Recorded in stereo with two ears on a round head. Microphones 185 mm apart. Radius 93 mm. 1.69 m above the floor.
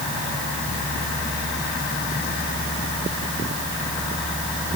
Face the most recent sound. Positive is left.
No sound to turn to.